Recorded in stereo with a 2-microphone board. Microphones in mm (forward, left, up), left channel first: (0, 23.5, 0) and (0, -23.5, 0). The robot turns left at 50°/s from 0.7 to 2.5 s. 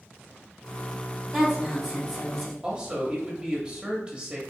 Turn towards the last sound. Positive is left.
turn(degrees=-20)  # may be behind; listen again after turning